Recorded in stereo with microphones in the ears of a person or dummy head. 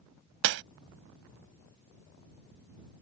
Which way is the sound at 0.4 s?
50° right (ahead or behind).